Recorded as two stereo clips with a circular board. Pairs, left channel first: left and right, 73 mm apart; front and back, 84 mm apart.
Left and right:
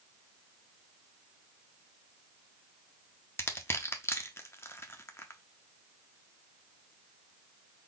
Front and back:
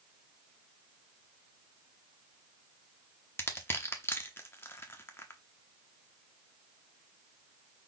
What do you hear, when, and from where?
3.4 s crushing: 50° left, 0.7 m